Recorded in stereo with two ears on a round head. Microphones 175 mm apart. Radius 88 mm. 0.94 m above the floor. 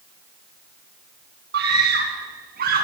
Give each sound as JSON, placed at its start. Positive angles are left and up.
{"t": 1.5, "sound": "a scream", "side_deg": -55, "distance_m": 8.0}